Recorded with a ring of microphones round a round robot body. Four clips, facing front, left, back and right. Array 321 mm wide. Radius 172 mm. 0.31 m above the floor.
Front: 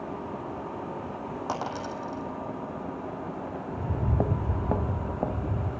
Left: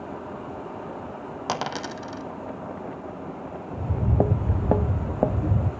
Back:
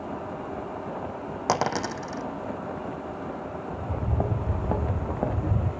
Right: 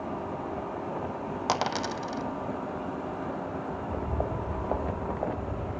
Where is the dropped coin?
170° left, 0.9 m.